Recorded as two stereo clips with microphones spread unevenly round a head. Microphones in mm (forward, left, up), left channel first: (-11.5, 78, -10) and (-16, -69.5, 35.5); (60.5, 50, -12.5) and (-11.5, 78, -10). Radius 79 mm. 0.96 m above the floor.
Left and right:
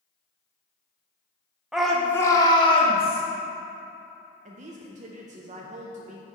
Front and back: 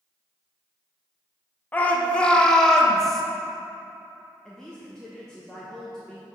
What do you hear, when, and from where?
1.7 s a shout: 20° left, 0.6 m; by 3.2 s 65° left, 1.2 m
4.5 s a woman speaking: 95° right, 0.6 m